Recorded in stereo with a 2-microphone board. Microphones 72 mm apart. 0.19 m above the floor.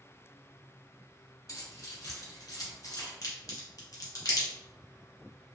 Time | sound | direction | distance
1.5 | keys jangling | 55° left (ahead or behind) | 1.5 m
3.2 | a crack | 55° left (ahead or behind) | 1.6 m